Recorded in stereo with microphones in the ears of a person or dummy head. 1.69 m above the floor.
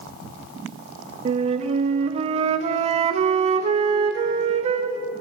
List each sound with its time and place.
1.2 s a flute: 30° right (ahead or behind), 0.6 m